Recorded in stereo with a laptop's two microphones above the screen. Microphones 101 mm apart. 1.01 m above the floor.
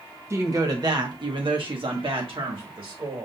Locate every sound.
0.3 s a woman speaking: 30° right (ahead or behind), 0.9 m; by 3.3 s 60° right (ahead or behind), 1.7 m